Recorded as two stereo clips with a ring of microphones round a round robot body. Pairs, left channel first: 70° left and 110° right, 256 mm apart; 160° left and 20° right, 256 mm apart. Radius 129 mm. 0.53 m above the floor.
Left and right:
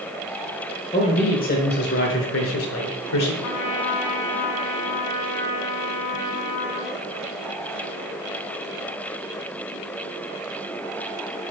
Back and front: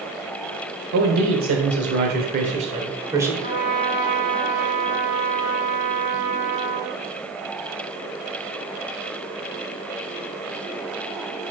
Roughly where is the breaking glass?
No breaking glass in this recording.